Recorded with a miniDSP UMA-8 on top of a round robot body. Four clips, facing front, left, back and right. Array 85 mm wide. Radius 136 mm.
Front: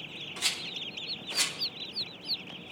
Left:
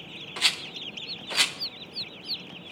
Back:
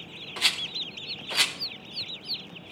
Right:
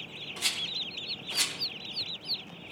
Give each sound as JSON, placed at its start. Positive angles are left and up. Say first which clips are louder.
{"t": 0.4, "sound": "a rattle", "louder": "left 6 dB, back 6 dB", "azimuth_deg": 130, "distance_m": 1.8}